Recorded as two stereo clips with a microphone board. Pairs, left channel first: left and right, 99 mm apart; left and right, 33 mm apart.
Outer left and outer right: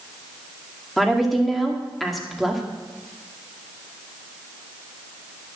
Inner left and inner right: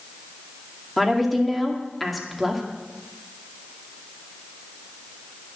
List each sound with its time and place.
1.0 s a woman speaking: centre (ahead or behind), 2 m